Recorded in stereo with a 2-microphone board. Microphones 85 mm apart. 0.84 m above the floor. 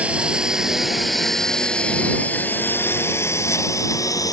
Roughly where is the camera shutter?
No camera shutter in this recording.